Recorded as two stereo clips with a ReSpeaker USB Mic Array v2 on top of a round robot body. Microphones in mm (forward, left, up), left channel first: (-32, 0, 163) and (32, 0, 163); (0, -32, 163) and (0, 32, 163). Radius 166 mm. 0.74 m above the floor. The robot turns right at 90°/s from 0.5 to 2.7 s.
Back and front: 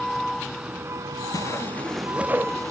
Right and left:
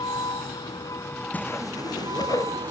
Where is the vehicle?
90° right; by 2.7 s 110° left.